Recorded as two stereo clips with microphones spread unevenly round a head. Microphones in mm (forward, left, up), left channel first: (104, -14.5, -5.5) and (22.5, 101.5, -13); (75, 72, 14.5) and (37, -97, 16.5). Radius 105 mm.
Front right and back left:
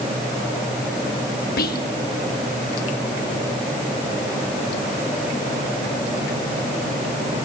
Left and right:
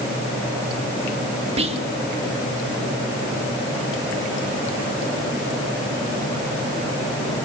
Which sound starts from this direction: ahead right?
Whispering, at 1.6 s.